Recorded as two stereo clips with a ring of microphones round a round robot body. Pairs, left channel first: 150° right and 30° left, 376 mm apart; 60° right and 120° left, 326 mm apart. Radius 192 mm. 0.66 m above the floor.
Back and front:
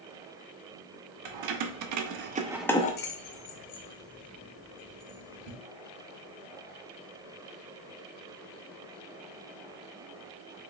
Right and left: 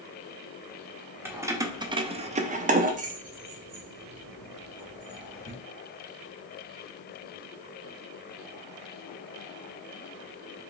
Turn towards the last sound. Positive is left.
turn(degrees=-160)